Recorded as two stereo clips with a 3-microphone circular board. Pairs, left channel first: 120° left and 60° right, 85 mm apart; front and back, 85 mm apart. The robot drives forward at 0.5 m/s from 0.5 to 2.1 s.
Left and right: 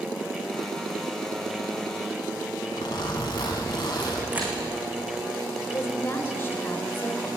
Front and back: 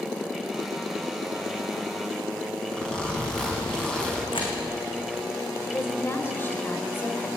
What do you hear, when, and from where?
2.7 s a zipper: 80° left, 5 m
4.3 s a camera shutter: 10° left, 5.5 m
5.7 s a woman speaking: 60° left, 2.5 m